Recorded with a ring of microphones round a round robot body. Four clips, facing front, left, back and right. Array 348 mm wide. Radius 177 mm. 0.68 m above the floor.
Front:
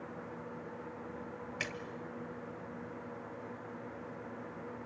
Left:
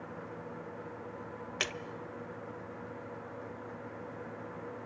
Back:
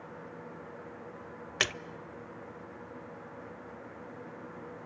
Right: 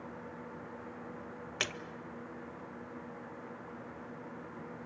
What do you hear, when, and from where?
1.6 s a splash: straight behind, 0.5 m